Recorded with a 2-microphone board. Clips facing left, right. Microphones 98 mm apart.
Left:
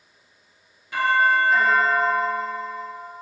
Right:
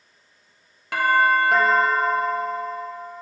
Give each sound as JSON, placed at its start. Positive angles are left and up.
{"t": 0.9, "sound": "a doorbell", "side_deg": -75, "distance_m": 1.4}